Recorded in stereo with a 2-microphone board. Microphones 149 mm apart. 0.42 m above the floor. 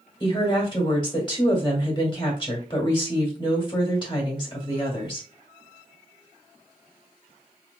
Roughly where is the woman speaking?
Left.